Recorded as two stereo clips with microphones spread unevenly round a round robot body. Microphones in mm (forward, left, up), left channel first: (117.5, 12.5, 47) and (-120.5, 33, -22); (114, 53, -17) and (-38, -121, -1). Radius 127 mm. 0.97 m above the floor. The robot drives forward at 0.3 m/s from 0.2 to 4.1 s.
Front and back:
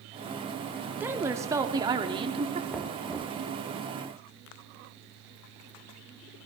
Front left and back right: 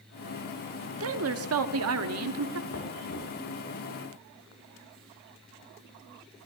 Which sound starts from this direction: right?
A woman speaking, at 1.0 s.